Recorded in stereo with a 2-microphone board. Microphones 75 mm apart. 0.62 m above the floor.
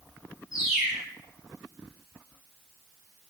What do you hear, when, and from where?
0.5 s a bird: 10° right (ahead or behind), 1.8 m